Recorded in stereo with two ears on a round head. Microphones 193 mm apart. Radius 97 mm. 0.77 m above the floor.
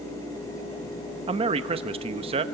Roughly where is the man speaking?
Right.